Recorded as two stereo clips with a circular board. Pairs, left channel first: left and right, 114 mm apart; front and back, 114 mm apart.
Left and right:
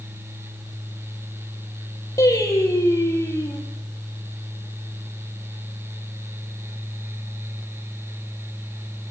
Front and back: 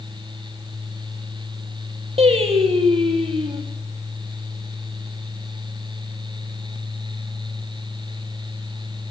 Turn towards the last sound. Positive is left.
turn(degrees=150)